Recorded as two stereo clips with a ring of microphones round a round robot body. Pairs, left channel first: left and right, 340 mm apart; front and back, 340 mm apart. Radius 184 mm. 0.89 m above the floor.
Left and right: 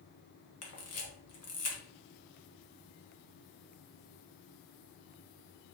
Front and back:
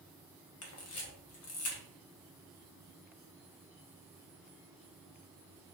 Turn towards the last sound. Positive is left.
turn(degrees=45)